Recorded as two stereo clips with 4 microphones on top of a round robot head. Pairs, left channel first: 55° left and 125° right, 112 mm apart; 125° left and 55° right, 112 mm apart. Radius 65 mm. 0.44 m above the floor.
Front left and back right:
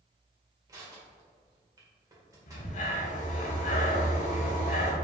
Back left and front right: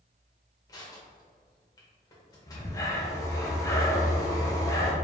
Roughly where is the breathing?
Ahead left.